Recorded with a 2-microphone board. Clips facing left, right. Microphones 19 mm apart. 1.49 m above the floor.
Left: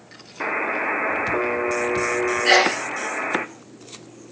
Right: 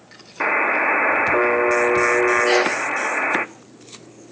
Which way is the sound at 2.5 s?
55° left (ahead or behind).